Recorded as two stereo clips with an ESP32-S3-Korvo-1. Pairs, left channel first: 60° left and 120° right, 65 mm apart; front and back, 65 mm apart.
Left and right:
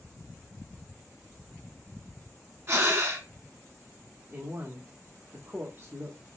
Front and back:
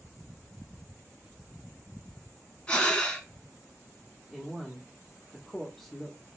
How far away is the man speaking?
About 1.0 m.